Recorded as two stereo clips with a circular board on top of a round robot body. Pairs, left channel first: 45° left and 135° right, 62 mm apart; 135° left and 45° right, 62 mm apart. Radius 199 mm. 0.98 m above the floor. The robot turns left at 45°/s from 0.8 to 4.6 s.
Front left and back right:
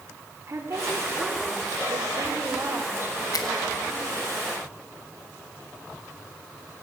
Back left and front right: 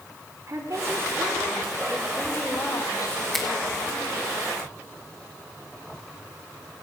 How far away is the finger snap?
About 2.5 m.